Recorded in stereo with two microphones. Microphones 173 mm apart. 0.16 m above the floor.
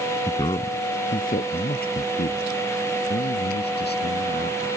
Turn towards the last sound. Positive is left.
turn(degrees=80)